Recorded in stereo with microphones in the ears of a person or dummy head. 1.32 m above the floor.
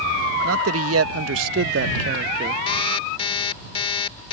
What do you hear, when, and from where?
0.4 s a man speaking: 80° right; by 2.6 s 35° right (ahead or behind)
2.7 s an alarm clock: 30° left (ahead or behind)